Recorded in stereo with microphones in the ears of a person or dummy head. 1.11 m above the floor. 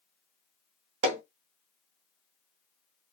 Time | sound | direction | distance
1.0 | hammering | 70° right (ahead or behind) | 0.9 m